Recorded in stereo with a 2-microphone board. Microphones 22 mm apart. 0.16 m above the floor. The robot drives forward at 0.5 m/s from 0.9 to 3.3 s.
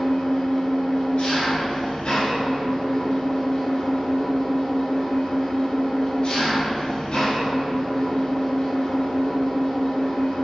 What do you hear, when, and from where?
0.0 s an engine running: 50° left (ahead or behind), 1.4 m